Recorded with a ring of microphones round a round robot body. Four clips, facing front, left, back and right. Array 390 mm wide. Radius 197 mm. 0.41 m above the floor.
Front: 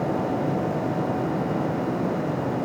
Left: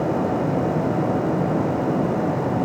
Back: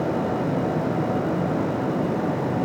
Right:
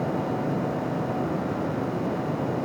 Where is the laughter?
No laughter in this recording.